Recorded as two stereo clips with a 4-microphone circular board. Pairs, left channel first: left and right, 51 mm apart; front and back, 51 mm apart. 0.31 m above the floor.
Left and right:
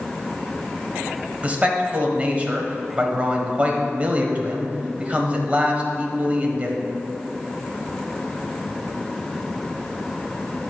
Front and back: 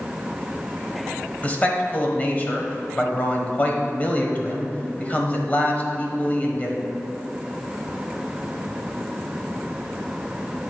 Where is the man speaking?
45° right, 1.2 m.